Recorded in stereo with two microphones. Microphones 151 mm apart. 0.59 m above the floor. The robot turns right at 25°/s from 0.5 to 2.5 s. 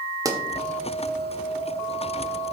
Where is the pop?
20° right (ahead or behind), 1.2 m.